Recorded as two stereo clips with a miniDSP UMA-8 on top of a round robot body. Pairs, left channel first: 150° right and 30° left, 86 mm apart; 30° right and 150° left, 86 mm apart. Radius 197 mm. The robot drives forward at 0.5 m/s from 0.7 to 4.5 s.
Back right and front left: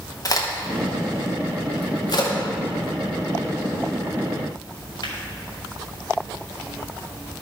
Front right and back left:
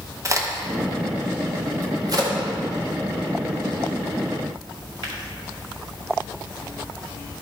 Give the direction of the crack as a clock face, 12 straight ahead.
6 o'clock.